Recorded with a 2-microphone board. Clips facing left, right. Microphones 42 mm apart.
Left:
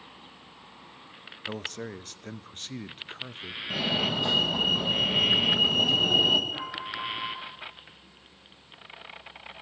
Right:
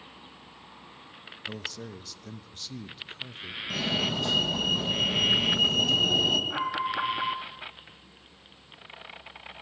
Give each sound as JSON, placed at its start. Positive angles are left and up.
{"t": 1.4, "sound": "a man speaking", "side_deg": 40, "distance_m": 0.7}
{"t": 3.7, "sound": "a fire alarm", "side_deg": 15, "distance_m": 2.0}
{"t": 6.5, "sound": "an alarm", "side_deg": -70, "distance_m": 2.5}